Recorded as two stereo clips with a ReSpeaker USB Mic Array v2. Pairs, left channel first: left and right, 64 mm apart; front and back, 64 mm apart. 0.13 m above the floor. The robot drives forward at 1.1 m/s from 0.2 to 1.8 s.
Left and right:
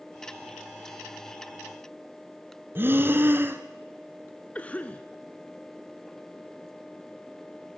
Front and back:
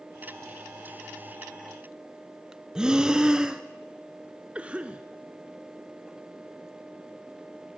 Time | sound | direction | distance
2.8 | breathing | 110° right | 1.4 m
4.5 | a cough | 130° left | 1.2 m